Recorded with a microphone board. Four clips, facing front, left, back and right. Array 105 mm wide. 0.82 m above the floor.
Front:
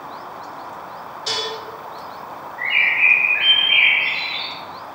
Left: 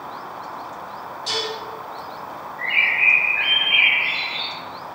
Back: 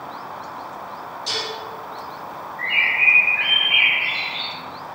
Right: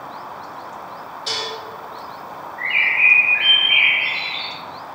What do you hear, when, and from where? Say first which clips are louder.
1.3 s dishes clattering: left 1 dB, front 3 dB; 30° right, 2 m
2.6 s a bird: right 2 dB, front 2 dB; 40° right, 2 m